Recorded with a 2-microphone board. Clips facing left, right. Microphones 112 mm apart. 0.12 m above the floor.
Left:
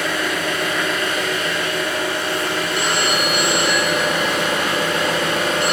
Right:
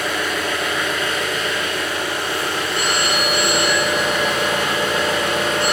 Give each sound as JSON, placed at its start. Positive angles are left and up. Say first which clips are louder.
{"t": 0.0, "sound": "an engine running", "louder": "left 1 dB", "side_deg": 70, "distance_m": 2.0}
{"t": 2.8, "sound": "a phone ringing", "louder": "even", "side_deg": 20, "distance_m": 0.6}